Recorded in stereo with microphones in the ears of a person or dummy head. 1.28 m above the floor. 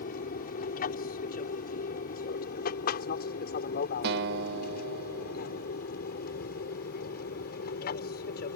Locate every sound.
0.0 s an aircraft: 45° left (ahead or behind); by 8.6 s 50° left (ahead or behind)
4.0 s a guitar: 60° right (ahead or behind)